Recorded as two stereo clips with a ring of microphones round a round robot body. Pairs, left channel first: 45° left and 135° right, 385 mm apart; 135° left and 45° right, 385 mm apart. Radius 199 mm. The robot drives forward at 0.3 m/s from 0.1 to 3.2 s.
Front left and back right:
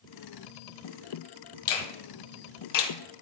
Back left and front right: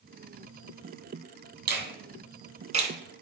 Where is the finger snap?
15° left, 1.4 m; by 2.9 s 25° left, 1.1 m.